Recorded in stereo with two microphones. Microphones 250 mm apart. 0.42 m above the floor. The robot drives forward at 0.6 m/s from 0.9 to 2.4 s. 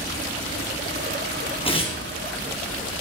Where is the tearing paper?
20° left (ahead or behind), 2.5 m.